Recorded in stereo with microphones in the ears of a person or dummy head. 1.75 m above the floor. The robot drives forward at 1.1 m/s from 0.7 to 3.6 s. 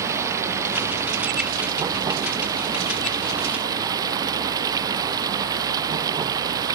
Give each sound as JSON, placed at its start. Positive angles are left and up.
{"t": 0.0, "sound": "running water", "side_deg": -15}